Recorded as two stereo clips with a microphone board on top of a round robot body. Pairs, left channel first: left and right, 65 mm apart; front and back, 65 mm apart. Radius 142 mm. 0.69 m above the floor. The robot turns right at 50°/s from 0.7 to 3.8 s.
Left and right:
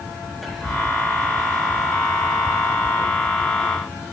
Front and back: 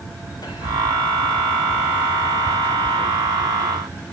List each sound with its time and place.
0.4 s whispering: straight ahead, 5.5 m; by 0.8 s 10° left, 5.5 m